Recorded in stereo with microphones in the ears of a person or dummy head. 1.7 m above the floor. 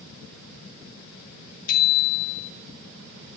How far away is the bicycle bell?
About 2.5 m.